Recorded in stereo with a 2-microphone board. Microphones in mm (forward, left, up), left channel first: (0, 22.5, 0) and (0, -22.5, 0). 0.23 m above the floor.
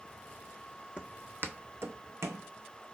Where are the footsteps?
20° right (ahead or behind), 0.5 m; by 2.5 s 75° right (ahead or behind), 0.8 m.